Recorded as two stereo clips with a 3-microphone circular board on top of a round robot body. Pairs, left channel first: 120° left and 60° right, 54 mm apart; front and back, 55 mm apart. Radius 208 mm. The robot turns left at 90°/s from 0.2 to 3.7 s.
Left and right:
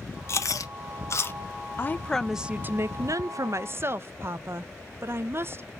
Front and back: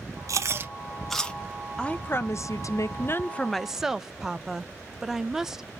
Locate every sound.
0.3 s chewing: 160° left, 0.7 m; by 1.4 s 65° left, 0.7 m
1.8 s a woman speaking: 75° left, 0.5 m; by 5.7 s 100° right, 0.5 m